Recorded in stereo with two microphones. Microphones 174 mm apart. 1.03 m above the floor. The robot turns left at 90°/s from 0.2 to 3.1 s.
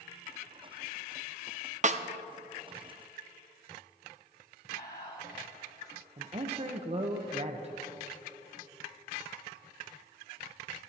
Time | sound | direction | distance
1.8 | a snare drum | 45° right (ahead or behind) | 0.6 m
4.7 | whispering | 80° left | 3.5 m
6.2 | a man speaking | 40° right (ahead or behind) | 0.7 m